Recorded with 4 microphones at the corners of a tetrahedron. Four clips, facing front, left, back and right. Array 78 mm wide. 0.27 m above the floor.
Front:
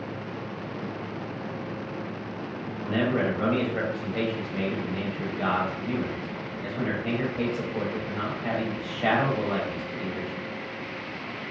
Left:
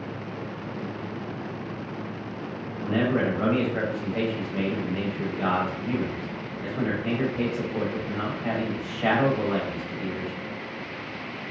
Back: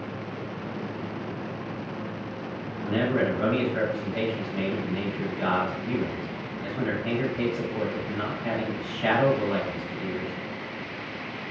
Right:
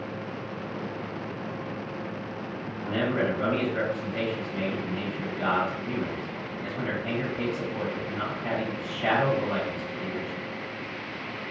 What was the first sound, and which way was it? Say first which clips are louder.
A man speaking: left 3 dB, back 1 dB; 70° left.